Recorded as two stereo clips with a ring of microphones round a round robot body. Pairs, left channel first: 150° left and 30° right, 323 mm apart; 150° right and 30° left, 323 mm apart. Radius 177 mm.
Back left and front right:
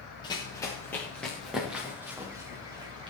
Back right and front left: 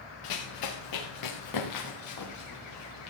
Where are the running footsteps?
135° right, 2.5 m; by 3.1 s 105° right, 3 m.